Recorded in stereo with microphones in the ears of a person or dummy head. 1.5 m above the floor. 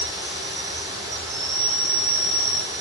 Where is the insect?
25° right (ahead or behind), 6 m.